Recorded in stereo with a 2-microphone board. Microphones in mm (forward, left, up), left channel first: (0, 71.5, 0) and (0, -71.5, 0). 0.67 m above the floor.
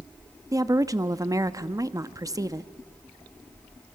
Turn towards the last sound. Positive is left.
turn(degrees=-25)  # may be behind; listen again after turning